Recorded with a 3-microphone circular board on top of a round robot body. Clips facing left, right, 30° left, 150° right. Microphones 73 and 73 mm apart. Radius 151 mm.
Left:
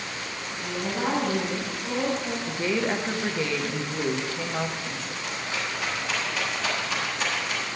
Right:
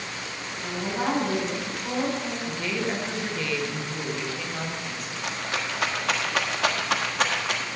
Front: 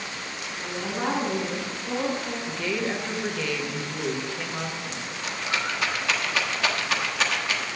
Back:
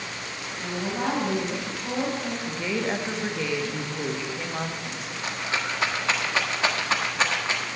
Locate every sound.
0.6 s a woman speaking: 160° right, 5 m
2.5 s a woman speaking: 145° left, 1.5 m
5.2 s a rattle: 90° right, 1.4 m